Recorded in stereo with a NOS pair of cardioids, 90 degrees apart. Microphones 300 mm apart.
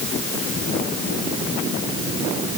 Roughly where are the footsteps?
I don't hear footsteps.